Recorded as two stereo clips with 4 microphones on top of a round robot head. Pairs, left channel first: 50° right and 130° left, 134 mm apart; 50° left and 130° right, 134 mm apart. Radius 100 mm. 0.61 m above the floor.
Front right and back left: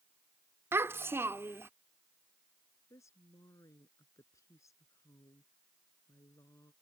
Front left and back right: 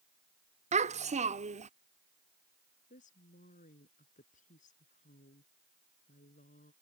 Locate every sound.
0.7 s a child speaking: 160° right
2.9 s a woman speaking: 20° left